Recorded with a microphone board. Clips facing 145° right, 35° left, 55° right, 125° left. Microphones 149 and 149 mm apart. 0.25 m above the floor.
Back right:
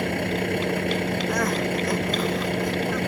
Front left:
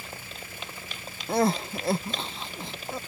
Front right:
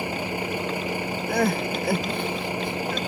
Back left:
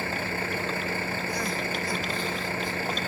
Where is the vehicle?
130° right.